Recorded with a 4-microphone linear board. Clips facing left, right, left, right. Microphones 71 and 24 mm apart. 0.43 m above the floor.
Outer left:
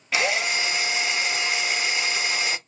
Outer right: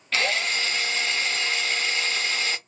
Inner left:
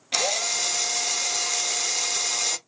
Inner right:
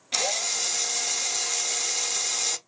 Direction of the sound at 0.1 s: 15° left (ahead or behind).